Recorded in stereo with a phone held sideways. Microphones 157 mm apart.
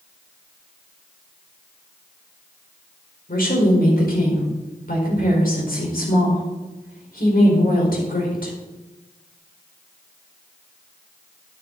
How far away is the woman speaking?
About 4.5 m.